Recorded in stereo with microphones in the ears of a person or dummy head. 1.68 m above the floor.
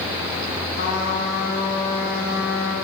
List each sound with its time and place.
0.8 s a trumpet: 50° left (ahead or behind), 2 m